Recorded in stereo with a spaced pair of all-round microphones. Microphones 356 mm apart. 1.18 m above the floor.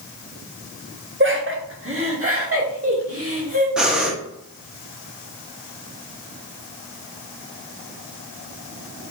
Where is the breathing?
Centre (ahead or behind), 0.7 m.